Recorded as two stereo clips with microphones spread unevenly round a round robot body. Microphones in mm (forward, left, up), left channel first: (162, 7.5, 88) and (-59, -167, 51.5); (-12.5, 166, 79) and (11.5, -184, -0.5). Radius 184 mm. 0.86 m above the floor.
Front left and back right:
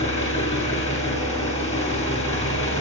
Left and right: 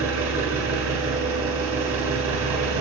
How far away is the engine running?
About 3 m.